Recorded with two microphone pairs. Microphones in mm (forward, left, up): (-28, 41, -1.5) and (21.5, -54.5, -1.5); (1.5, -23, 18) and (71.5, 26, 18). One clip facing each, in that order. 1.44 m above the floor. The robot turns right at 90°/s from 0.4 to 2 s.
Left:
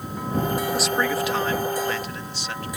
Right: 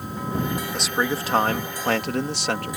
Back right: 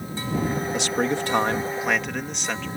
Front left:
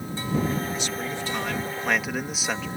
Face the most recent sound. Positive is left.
turn(degrees=-50)